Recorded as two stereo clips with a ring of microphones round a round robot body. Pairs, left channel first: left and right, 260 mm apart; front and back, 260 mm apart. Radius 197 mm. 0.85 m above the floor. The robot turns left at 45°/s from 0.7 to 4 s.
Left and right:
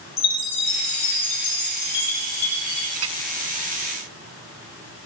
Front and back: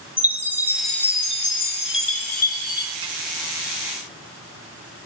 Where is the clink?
120° right, 0.7 m; by 3.2 s 130° right, 0.7 m.